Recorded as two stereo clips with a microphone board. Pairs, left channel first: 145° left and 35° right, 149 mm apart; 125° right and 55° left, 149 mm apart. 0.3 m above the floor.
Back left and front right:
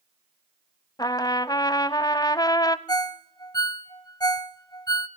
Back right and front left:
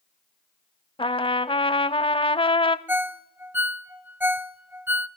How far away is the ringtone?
About 0.7 m.